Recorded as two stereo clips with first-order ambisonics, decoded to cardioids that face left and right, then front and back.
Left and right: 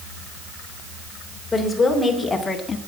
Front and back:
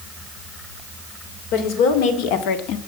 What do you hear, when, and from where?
1.5 s a woman speaking: 5° left, 3 m; by 2.8 s 20° left, 1.4 m